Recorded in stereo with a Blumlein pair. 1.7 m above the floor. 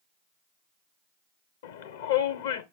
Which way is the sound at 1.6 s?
60° left.